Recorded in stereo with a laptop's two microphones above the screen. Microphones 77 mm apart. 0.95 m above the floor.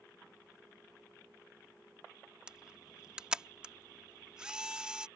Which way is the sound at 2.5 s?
10° right (ahead or behind).